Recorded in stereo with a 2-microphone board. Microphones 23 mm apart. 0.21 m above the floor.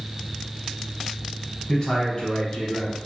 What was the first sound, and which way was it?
A man speaking, 35° left (ahead or behind).